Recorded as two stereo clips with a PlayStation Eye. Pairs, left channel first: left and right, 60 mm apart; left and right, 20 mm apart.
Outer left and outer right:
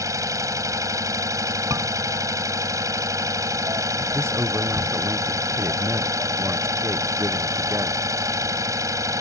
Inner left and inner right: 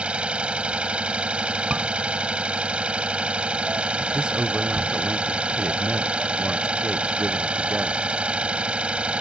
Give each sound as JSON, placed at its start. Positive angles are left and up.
{"t": 0.0, "sound": "an engine running", "side_deg": -70}
{"t": 1.7, "sound": "a scream", "side_deg": -65}
{"t": 4.1, "sound": "a man speaking", "side_deg": -45}